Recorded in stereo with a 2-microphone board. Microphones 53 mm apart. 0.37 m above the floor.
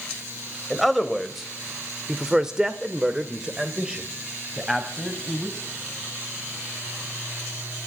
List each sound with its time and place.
0.7 s a man speaking: centre (ahead or behind), 1.7 m; by 5.7 s 15° right (ahead or behind), 3 m